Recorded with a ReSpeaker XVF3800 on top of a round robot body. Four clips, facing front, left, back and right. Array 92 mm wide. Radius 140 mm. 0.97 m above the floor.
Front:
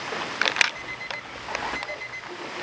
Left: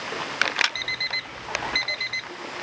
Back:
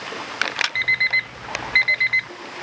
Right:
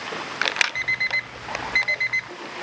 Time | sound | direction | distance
0.8 | an alarm clock | 150° right | ?